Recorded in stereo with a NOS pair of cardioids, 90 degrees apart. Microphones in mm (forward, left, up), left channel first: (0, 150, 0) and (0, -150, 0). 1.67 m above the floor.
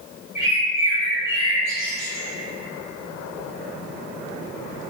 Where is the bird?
20° left, 1.6 m.